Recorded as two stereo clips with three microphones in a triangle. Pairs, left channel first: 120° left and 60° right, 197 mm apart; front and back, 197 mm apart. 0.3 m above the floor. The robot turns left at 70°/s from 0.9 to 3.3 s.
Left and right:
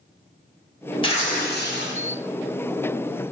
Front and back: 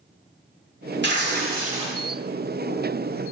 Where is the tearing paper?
Straight behind, 1.2 m; by 2.0 s 110° left, 1.2 m.